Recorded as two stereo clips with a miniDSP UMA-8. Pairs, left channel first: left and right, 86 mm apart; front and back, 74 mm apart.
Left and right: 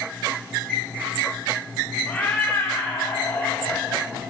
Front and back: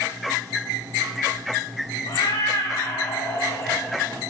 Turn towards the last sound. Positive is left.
turn(degrees=30)